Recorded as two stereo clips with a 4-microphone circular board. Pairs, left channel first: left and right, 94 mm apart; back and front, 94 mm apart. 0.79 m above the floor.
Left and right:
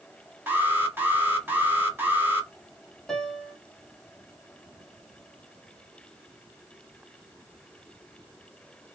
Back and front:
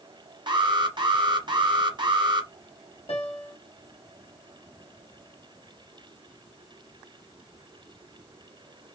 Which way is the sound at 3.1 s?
175° left.